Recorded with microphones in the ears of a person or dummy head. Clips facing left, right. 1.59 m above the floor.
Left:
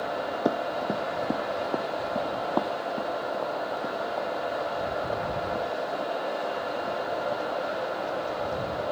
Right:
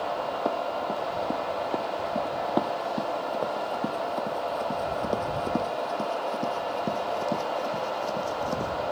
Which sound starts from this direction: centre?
Running footsteps, at 0.5 s.